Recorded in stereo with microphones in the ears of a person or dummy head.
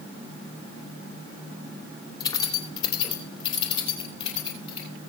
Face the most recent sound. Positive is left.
turn(degrees=30)  # may be behind; listen again after turning